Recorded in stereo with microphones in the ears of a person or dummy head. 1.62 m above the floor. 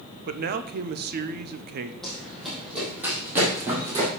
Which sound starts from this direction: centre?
Running footsteps, at 2.0 s.